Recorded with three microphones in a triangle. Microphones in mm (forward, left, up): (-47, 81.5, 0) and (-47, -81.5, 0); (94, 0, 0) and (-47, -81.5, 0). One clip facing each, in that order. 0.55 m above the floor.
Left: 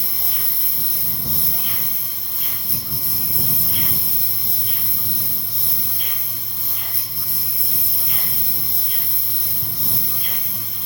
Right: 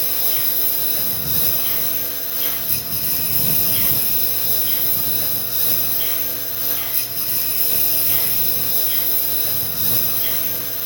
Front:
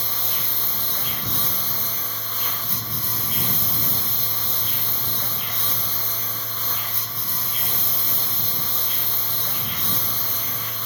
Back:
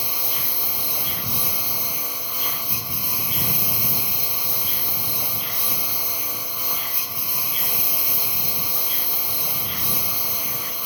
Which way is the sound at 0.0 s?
70° right.